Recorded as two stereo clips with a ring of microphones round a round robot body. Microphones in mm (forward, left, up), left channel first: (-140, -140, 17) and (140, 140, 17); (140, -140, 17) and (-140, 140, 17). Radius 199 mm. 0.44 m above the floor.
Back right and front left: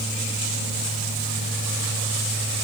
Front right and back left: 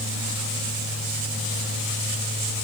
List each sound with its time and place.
Only background noise.